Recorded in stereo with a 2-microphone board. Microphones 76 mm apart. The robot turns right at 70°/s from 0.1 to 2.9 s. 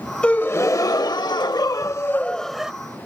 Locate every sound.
0.2 s a gasp: 15° left; by 2.7 s 170° right